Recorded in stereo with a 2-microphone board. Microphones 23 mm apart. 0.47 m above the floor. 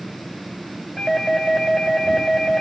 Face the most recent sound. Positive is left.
turn(degrees=10)  # may be behind; listen again after turning